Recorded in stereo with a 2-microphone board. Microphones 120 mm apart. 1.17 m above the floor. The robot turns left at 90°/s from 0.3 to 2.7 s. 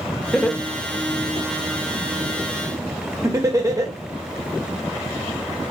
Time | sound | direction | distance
0.3 | laughter | centre (ahead or behind) | 0.8 m